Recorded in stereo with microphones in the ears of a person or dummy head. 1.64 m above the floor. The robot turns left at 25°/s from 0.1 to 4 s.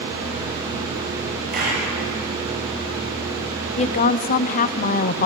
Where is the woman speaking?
30° left (ahead or behind), 0.8 m; by 5.3 s 35° left (ahead or behind), 0.8 m.